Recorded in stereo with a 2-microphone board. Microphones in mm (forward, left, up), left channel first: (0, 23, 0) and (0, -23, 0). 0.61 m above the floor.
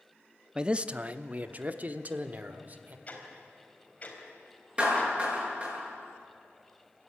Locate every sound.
0.6 s a man speaking: 20° right (ahead or behind), 0.5 m; by 3.0 s 40° right (ahead or behind), 1.6 m
3.1 s ticking: 30° left (ahead or behind), 4 m
4.8 s a clap: 25° right (ahead or behind), 8 m